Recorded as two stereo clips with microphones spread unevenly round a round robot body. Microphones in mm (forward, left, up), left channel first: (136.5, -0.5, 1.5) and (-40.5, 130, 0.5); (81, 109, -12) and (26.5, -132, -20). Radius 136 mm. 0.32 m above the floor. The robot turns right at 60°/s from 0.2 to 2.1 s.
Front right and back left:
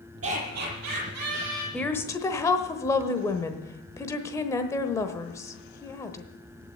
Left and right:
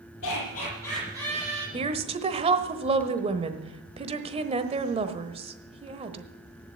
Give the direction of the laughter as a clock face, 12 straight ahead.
8 o'clock.